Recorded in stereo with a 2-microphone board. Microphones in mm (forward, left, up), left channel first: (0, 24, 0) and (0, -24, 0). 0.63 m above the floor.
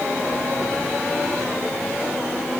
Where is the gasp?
No gasp in this recording.